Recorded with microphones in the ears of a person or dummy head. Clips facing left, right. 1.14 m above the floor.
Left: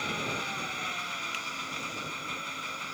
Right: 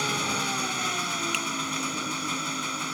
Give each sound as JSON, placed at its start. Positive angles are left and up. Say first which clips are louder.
{"t": 0.0, "sound": "an engine running", "louder": "right 5 dB", "side_deg": -60}
{"t": 1.3, "sound": "a finger snap", "louder": "right 10 dB", "side_deg": -45}